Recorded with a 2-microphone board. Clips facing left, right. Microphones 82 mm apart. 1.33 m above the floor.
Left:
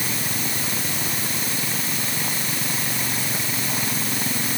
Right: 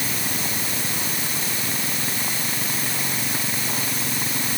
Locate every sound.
Only background noise.